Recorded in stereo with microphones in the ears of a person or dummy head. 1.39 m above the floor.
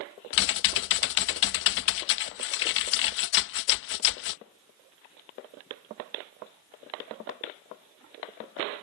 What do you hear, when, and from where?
0.3 s typing on a keyboard: 65° left (ahead or behind)